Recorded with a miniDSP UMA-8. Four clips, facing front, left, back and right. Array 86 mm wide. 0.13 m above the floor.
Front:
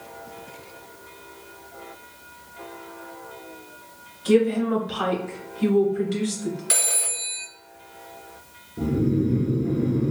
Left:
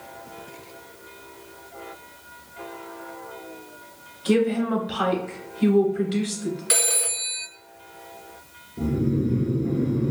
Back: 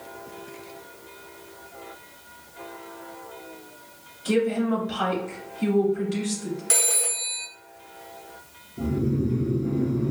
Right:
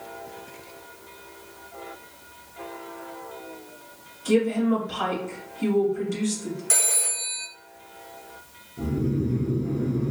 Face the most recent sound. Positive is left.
turn(degrees=25)